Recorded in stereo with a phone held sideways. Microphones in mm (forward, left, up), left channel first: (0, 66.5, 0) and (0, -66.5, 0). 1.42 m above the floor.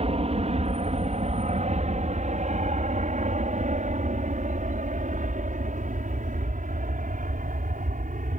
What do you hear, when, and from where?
0.0 s an aircraft: 50° right (ahead or behind); by 8.4 s 75° right (ahead or behind)